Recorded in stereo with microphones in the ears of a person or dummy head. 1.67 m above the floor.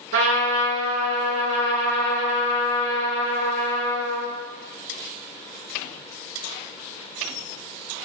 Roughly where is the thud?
No thud in this recording.